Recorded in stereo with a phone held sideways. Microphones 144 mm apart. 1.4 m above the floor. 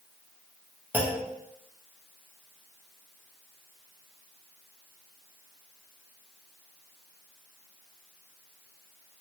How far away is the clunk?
About 0.7 m.